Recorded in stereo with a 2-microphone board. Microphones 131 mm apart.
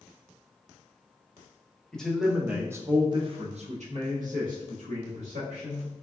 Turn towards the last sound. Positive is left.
turn(degrees=-75)  # may be behind; listen again after turning